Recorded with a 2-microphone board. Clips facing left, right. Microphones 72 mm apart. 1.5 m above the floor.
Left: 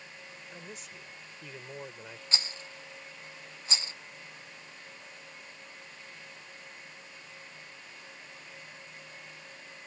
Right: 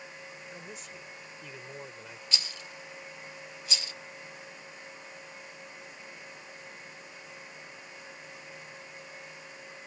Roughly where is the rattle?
Left.